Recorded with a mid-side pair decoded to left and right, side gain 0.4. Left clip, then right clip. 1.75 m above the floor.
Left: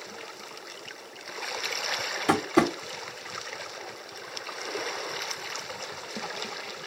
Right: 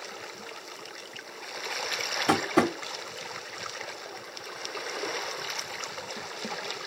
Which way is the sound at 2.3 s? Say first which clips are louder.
Left 1 dB; 5° left.